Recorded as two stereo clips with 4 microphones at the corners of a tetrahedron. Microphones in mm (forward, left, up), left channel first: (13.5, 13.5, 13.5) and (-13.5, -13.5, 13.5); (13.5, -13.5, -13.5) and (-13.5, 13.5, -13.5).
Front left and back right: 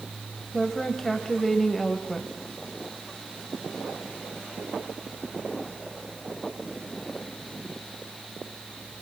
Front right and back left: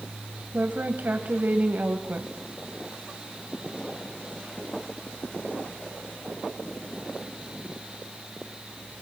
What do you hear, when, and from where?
0.5 s a woman speaking: 125° left, 1.8 m